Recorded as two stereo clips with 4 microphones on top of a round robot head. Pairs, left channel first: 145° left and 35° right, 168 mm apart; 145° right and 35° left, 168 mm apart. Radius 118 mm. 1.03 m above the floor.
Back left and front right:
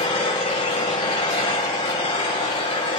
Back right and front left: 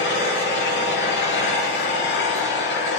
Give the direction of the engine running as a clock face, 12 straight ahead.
5 o'clock.